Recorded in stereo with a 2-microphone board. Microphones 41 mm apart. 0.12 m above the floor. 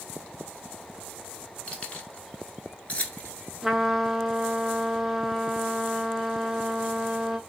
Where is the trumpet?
5° right (ahead or behind), 0.5 m.